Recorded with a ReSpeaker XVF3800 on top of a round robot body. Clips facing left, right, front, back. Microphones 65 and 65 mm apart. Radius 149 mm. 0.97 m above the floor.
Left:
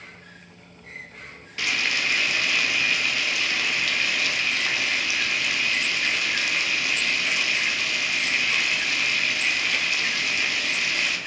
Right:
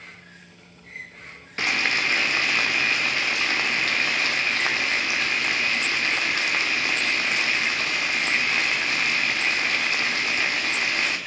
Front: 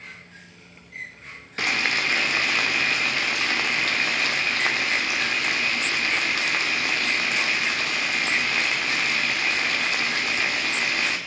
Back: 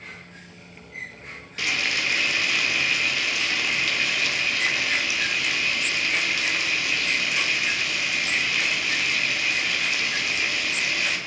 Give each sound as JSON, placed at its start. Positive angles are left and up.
{"t": 1.6, "sound": "frying", "azimuth_deg": -40, "distance_m": 0.9}